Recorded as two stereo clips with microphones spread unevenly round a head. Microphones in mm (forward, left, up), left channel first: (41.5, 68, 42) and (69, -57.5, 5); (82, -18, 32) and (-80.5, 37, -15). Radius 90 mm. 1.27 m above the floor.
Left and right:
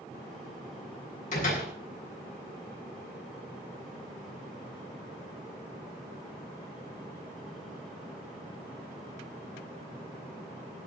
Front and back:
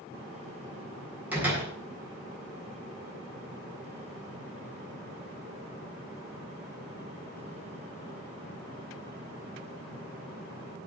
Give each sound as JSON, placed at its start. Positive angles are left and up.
{"t": 1.3, "sound": "a door slam", "azimuth_deg": 80, "distance_m": 8.0}